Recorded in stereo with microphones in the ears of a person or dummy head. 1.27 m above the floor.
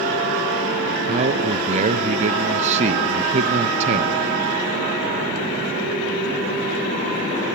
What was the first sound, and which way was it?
A man speaking, 40° right (ahead or behind).